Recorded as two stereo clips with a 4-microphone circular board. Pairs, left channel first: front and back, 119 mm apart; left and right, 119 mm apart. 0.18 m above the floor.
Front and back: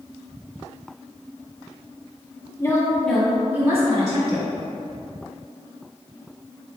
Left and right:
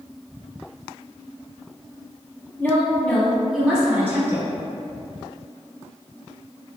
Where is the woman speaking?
35° left, 1.2 m; by 4.5 s 160° right, 1.5 m.